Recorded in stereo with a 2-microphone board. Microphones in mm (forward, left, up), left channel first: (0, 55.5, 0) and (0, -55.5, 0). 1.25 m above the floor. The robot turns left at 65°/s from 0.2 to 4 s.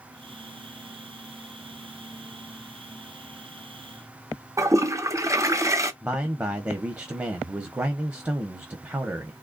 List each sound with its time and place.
4.6 s a toilet flushing: 25° right (ahead or behind), 0.6 m
6.0 s a man speaking: 20° right (ahead or behind), 0.8 m